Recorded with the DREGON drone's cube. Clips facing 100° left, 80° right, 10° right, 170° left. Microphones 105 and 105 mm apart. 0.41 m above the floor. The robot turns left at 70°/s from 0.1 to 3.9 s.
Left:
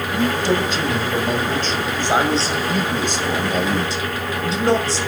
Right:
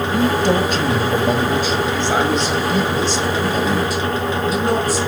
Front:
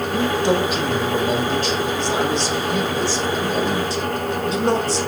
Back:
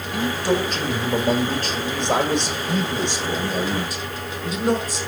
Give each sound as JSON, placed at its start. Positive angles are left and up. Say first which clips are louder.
{"t": 0.1, "sound": "a man speaking", "louder": "right 2 dB, front 2 dB", "azimuth_deg": -50, "distance_m": 2.0}